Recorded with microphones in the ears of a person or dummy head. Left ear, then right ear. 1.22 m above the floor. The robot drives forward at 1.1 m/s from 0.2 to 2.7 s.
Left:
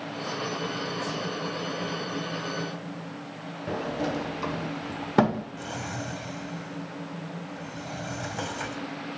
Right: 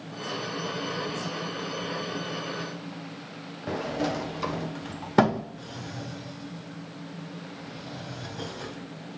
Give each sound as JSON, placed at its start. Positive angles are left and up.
{"t": 3.7, "sound": "a sliding door", "side_deg": -10, "distance_m": 0.7}
{"t": 5.6, "sound": "a drawer", "side_deg": 50, "distance_m": 2.0}